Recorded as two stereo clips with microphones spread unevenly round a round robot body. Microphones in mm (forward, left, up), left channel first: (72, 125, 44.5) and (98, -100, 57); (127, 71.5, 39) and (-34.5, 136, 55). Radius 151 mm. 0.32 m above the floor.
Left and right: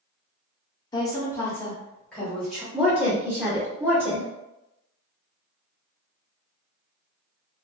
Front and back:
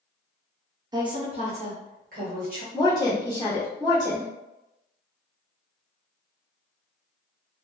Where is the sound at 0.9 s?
115° left, 0.8 m; by 2.6 s 175° right, 1.3 m.